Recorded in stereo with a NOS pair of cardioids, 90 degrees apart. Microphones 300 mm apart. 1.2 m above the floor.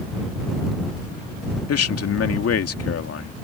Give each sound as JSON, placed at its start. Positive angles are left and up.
{"t": 1.7, "sound": "a man speaking", "azimuth_deg": 55}